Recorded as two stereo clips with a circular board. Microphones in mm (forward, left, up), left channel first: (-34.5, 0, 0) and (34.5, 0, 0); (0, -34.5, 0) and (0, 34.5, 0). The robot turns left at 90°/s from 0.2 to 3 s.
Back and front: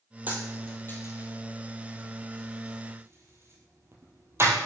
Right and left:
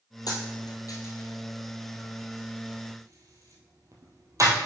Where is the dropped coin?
65° right, 1.8 m; by 4.5 s 50° left, 1.8 m.